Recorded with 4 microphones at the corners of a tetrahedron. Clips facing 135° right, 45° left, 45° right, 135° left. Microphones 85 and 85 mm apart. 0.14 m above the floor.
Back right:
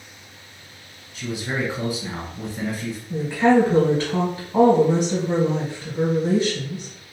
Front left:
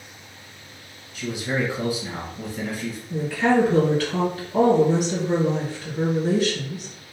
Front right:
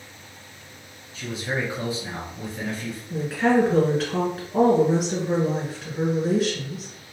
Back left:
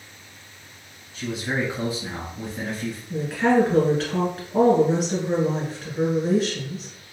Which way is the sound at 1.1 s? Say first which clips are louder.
Front left 1 dB, back left 2 dB; 165° right.